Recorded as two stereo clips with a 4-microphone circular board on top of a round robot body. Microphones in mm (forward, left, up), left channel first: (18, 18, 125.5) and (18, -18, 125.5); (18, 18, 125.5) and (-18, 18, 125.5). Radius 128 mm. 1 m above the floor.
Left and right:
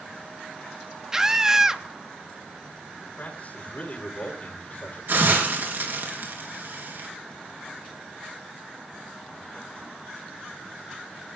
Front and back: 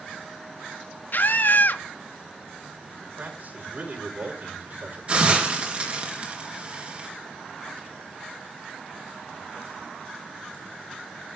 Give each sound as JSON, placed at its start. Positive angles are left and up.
{"t": 1.1, "sound": "a scream", "azimuth_deg": -15, "distance_m": 1.7}
{"t": 3.1, "sound": "a man speaking", "azimuth_deg": 145, "distance_m": 4.5}
{"t": 5.1, "sound": "a hiss", "azimuth_deg": -120, "distance_m": 3.5}